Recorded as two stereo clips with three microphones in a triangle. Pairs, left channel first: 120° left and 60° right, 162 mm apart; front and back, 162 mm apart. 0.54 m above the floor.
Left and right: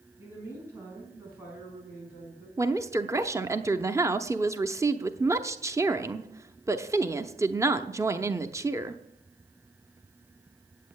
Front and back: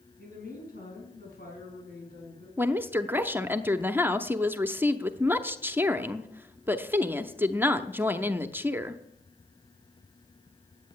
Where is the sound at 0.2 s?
15° left, 5.5 m; by 2.5 s 25° left, 5 m.